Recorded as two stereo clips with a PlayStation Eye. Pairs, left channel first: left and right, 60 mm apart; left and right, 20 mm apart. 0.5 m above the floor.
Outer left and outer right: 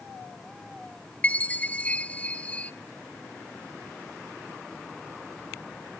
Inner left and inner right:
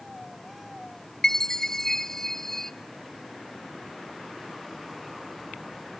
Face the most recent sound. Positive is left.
turn(degrees=25)  # may be behind; listen again after turning